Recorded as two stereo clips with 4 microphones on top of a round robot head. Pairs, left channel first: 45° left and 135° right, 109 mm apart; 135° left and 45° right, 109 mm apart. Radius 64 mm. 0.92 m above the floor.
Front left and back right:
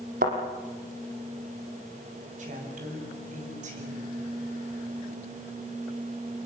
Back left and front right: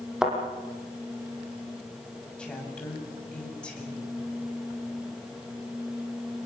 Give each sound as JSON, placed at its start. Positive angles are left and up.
{"t": 0.2, "sound": "a thud", "azimuth_deg": -130, "distance_m": 5.0}
{"t": 2.4, "sound": "a woman speaking", "azimuth_deg": -145, "distance_m": 7.5}